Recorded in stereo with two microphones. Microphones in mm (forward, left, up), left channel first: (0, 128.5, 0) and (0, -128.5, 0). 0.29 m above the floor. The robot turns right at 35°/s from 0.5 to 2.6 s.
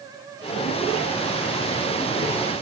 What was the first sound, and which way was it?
Only background noise.